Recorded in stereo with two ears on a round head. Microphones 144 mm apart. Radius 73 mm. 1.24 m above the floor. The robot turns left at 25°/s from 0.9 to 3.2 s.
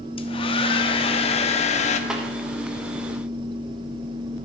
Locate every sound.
0.2 s a hair dryer: 35° left (ahead or behind), 0.6 m; by 2.0 s 45° left (ahead or behind), 0.6 m
2.1 s a snare drum: 5° right (ahead or behind), 1.1 m; by 2.2 s 10° right (ahead or behind), 1.1 m